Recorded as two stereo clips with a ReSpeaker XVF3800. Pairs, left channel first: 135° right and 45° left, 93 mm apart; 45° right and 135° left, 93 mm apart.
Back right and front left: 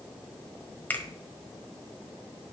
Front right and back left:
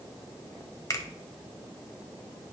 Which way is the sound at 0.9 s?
75° right.